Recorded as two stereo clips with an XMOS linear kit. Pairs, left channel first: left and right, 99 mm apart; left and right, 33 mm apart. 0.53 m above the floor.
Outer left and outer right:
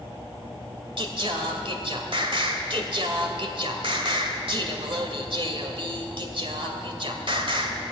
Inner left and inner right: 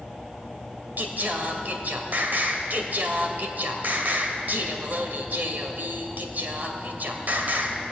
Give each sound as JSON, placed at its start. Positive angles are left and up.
{"t": 1.0, "sound": "singing", "side_deg": -60, "distance_m": 2.0}